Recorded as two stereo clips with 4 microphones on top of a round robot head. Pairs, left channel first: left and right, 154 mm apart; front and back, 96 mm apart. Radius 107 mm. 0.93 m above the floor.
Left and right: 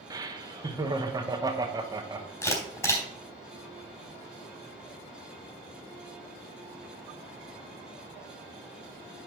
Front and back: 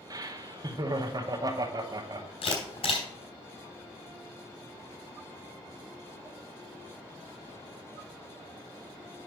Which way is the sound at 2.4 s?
15° left.